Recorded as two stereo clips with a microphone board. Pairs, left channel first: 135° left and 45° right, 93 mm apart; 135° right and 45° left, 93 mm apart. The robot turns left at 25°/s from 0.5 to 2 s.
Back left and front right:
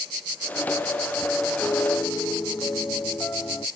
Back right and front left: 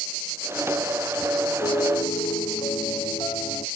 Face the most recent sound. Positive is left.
turn(degrees=-155)